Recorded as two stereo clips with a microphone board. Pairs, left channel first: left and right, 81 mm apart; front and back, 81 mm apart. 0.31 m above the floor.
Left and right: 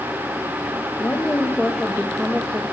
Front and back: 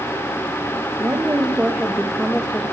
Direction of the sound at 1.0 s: 140° left.